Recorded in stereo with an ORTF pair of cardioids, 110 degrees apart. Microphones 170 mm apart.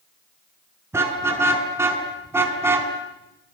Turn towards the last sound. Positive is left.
turn(degrees=-15)